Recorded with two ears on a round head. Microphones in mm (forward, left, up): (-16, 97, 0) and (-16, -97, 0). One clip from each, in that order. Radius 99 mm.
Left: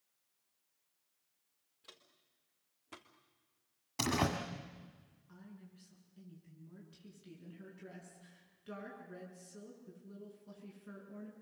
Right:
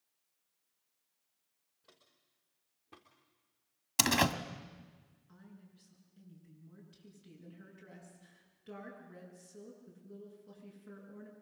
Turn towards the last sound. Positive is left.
turn(degrees=5)  # may be behind; listen again after turning